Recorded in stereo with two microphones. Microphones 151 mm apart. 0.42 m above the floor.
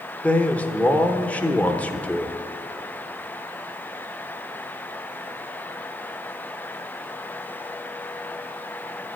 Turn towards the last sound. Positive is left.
turn(degrees=10)  # may be behind; listen again after turning